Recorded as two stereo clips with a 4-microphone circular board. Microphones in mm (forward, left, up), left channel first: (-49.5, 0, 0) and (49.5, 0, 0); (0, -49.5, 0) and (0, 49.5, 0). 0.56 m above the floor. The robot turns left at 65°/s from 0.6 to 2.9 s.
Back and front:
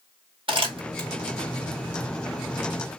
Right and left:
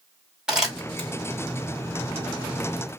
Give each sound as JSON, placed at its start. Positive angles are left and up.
{"t": 0.5, "sound": "crumpling", "azimuth_deg": 10, "distance_m": 1.9}